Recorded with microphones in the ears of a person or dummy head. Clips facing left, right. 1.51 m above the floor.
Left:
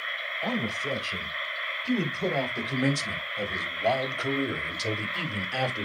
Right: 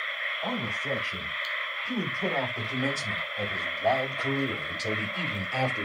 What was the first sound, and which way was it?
A man speaking, 30° left (ahead or behind).